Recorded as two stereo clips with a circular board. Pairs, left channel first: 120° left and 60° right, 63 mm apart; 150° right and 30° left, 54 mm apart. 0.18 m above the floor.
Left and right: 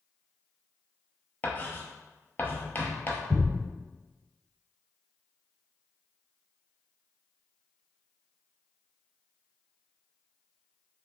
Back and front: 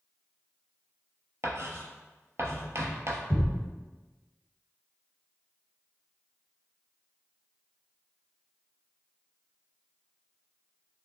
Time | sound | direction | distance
1.4 | writing | 60° left | 0.6 m
3.3 | a thud | 65° right | 1.5 m